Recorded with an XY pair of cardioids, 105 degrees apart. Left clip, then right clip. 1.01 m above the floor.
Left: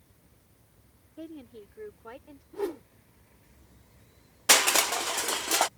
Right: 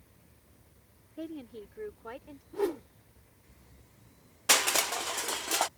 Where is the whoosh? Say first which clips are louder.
Right 2 dB; 15° right.